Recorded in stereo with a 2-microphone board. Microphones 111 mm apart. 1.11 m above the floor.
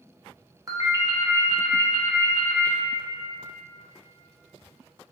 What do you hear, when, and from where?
0.7 s a ringtone: 35° right (ahead or behind), 0.5 m